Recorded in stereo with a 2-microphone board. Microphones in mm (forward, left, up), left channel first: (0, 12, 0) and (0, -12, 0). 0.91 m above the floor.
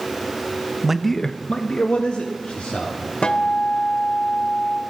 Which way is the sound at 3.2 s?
50° left (ahead or behind).